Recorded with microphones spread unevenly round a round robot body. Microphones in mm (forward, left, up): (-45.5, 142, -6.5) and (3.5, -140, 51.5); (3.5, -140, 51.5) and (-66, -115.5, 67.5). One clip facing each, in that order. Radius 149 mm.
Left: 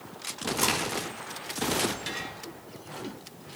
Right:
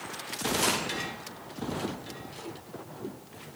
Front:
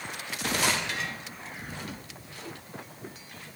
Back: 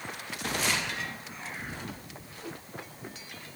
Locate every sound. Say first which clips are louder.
0.6 s a crack: left 1 dB, front 2 dB; 25° left, 5.5 m